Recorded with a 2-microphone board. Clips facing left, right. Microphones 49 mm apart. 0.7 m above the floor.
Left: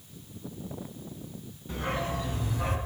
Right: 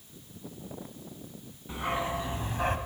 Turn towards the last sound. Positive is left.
turn(degrees=-50)  # may be behind; listen again after turning